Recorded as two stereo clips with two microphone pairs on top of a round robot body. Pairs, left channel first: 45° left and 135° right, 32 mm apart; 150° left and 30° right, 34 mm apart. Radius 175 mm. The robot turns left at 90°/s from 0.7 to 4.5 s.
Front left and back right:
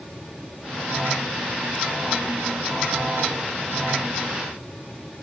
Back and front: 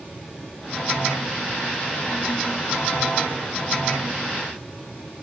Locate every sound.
Only background noise.